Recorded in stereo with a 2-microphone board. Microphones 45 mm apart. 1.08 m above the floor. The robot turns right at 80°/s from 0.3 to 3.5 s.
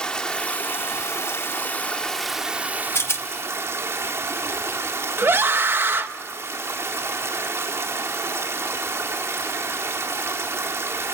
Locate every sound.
0.0 s running water: 25° left, 1.7 m; by 11.1 s 80° right, 1.7 m
3.0 s a rattle: 75° left (ahead or behind), 1.0 m; by 3.3 s 70° left (ahead or behind), 1.0 m
5.2 s a scream: 60° right (ahead or behind), 1.3 m